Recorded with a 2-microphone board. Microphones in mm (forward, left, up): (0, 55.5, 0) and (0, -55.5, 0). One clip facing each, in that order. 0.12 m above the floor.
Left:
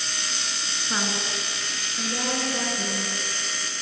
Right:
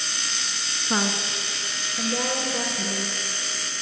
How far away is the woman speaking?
About 1.3 m.